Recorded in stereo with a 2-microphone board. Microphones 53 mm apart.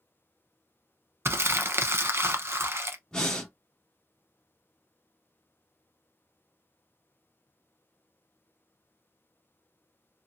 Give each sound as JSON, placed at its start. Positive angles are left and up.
{"t": 1.2, "sound": "crumpling", "side_deg": -50, "distance_m": 0.6}
{"t": 3.1, "sound": "breathing", "side_deg": 15, "distance_m": 1.1}